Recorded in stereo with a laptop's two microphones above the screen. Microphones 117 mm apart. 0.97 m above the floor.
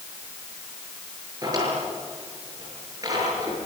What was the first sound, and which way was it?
A drawer, 30° right (ahead or behind).